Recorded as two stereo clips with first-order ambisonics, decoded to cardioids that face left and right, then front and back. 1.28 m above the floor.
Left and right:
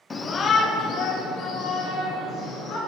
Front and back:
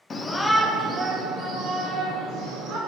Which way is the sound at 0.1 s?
35° left.